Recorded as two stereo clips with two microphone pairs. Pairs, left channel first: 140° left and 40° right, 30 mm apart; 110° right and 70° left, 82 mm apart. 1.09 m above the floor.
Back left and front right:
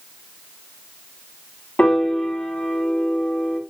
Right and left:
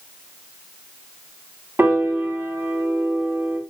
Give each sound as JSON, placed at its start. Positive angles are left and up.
{"t": 1.8, "sound": "a piano", "azimuth_deg": 130, "distance_m": 0.8}